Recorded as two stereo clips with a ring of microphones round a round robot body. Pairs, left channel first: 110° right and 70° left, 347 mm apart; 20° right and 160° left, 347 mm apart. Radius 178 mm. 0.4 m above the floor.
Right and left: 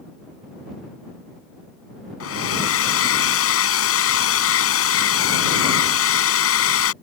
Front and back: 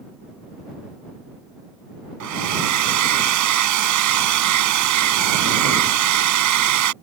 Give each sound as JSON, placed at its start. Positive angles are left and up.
{"t": 2.2, "sound": "a hair dryer", "azimuth_deg": -165}